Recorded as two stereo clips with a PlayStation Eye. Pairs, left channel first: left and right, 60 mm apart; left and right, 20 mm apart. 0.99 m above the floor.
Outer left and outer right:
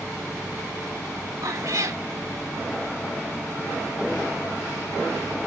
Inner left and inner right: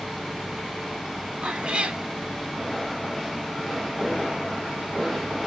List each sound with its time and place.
1.4 s a cat meowing: 65° right (ahead or behind), 2 m